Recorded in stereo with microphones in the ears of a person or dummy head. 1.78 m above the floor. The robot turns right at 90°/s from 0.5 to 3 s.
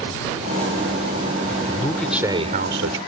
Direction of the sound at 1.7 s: 145° left.